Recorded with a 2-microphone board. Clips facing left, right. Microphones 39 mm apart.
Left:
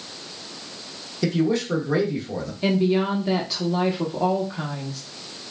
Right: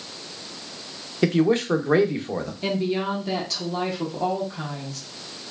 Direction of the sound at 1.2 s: 40° right (ahead or behind).